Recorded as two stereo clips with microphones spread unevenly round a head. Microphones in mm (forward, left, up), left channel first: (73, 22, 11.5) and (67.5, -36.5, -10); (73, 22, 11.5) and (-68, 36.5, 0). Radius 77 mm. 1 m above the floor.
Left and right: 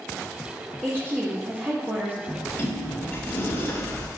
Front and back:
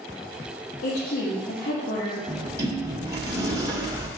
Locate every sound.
0.8 s a woman speaking: 35° right, 1.5 m
2.3 s a sliding door: 110° left, 1.1 m